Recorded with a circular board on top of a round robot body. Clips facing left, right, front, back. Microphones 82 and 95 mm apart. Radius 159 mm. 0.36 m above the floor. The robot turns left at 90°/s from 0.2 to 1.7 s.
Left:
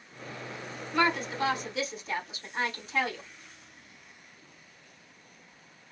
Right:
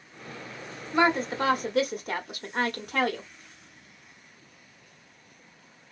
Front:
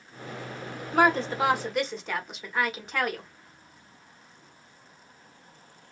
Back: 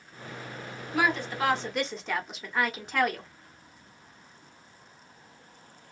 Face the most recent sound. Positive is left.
turn(degrees=-90)